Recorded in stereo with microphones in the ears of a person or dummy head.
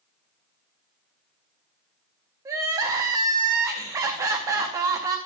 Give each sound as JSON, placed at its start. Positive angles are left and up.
{"t": 2.5, "sound": "crying", "side_deg": -20, "distance_m": 1.0}